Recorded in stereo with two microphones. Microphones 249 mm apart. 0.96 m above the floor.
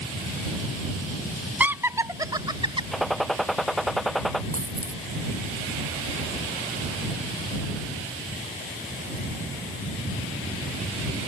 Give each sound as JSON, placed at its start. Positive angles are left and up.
{"t": 1.6, "sound": "laughter", "side_deg": -5}
{"t": 2.9, "sound": "a gunshot", "side_deg": 0}
{"t": 4.5, "sound": "a dropped coin", "side_deg": -70}